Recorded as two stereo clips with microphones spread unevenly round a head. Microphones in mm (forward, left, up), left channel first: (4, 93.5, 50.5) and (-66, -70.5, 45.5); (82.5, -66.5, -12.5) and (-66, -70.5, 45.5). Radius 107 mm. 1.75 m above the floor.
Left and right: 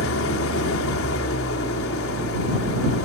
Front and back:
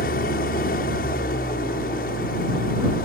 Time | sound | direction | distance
0.0 | an engine running | 55° left | ?